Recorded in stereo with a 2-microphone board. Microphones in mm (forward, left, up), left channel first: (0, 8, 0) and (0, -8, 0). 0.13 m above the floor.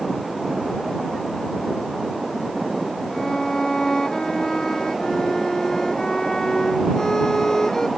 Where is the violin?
45° left (ahead or behind).